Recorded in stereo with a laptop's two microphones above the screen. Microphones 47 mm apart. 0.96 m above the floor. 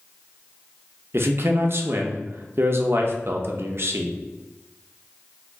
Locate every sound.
1.1 s a man speaking: 55° right (ahead or behind), 0.6 m